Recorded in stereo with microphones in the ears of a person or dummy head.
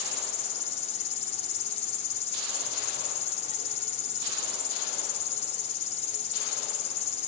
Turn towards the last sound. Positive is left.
turn(degrees=35)  # may be behind; listen again after turning